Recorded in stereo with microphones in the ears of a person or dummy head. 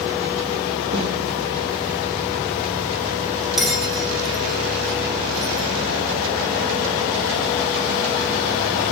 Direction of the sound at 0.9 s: 60° right (ahead or behind).